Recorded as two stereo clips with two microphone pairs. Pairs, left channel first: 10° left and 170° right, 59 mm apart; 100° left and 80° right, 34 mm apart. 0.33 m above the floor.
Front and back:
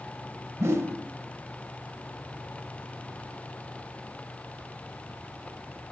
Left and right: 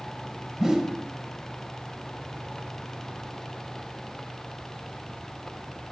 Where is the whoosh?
150° right, 0.6 m.